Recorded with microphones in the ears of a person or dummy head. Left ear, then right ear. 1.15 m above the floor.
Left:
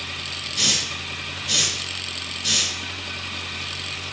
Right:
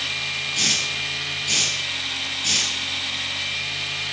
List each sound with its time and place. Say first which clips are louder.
0.5 s a hiss: left 1 dB; 20° right (ahead or behind), 3.5 m